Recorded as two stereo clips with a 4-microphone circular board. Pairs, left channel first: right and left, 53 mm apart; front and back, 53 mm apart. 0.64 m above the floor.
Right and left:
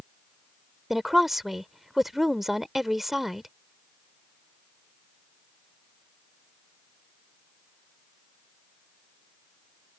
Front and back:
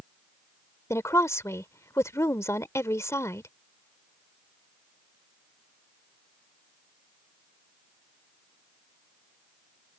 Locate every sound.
0.9 s a woman speaking: straight ahead